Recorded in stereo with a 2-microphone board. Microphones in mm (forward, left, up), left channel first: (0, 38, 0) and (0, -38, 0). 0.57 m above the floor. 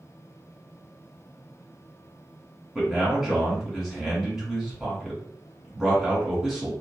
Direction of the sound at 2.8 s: 5° right (ahead or behind).